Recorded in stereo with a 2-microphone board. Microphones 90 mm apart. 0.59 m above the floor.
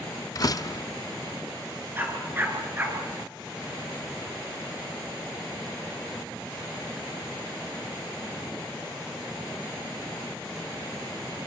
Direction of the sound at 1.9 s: 25° right (ahead or behind).